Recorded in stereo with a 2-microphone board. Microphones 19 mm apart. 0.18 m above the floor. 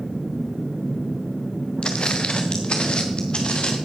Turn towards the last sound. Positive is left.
turn(degrees=55)  # may be behind; listen again after turning